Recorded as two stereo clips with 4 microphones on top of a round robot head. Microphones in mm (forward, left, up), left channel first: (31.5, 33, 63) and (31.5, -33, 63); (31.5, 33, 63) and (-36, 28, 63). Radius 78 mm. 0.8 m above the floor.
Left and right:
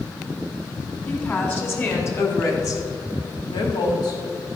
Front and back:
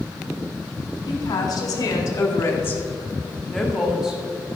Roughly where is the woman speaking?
Ahead left.